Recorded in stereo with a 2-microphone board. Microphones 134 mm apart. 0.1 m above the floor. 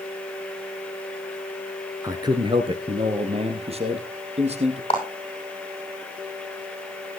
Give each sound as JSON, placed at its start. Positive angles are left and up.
{"t": 2.0, "sound": "a man speaking", "side_deg": -25, "distance_m": 1.2}
{"t": 4.9, "sound": "a clap", "side_deg": 40, "distance_m": 9.0}